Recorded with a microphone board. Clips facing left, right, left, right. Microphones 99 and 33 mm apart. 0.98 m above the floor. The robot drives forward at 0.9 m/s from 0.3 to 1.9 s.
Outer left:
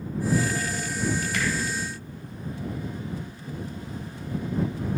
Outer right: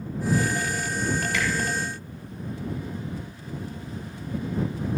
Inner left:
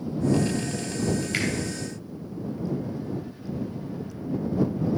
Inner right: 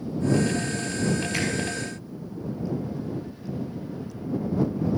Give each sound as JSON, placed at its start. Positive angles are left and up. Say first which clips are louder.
{"t": 1.3, "sound": "a finger snap", "louder": "outer right 1 dB, even", "side_deg": 50, "distance_m": 2.5}